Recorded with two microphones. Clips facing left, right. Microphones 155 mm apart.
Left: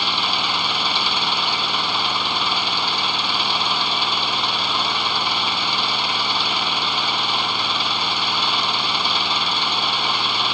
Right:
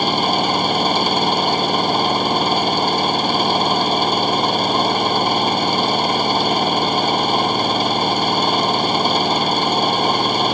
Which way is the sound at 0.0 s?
45° right (ahead or behind).